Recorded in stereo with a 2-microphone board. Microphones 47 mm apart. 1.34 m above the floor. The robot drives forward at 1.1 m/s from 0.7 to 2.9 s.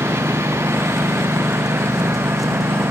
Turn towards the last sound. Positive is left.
turn(degrees=-65)  # may be behind; listen again after turning